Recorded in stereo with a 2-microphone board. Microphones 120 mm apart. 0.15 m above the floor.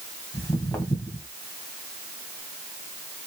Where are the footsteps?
25° left (ahead or behind), 2.5 m.